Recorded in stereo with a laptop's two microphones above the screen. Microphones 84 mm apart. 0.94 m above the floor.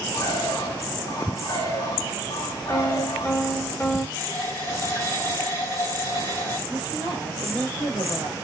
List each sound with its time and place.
0.1 s a bird: 60° left (ahead or behind), 2 m
2.7 s a piano: 30° left (ahead or behind), 0.8 m
4.2 s a running tap: 50° left (ahead or behind), 3 m
6.7 s a woman speaking: 60° left (ahead or behind), 1.4 m